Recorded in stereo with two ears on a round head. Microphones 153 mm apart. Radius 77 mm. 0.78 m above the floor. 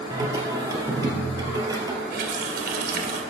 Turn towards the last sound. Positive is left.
turn(degrees=-65)  # may be behind; listen again after turning